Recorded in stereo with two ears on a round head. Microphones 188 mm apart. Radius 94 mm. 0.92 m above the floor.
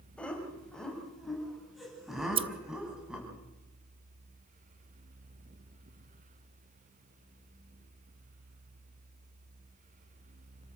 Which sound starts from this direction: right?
Scissors, at 2.2 s.